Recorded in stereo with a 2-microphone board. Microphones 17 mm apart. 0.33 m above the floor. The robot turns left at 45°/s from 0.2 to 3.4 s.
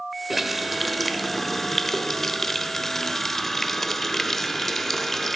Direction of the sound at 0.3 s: 5° right (ahead or behind).